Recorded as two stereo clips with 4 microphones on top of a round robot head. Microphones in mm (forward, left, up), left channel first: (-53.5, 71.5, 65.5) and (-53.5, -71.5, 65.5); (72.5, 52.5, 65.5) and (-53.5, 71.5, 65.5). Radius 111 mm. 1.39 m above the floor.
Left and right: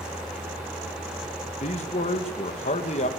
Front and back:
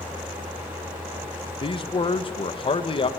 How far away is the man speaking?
About 1.8 m.